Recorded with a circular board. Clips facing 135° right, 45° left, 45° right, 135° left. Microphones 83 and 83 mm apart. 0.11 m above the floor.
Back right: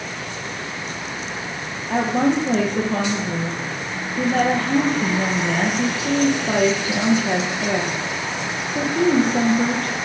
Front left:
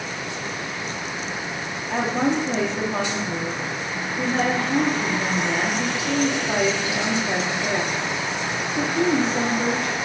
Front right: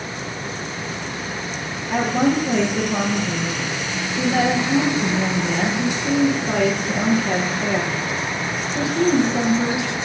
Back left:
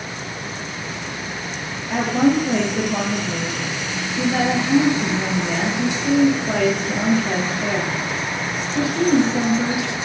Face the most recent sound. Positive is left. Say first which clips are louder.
# back right 3 dB, back left 1 dB
turn(degrees=-135)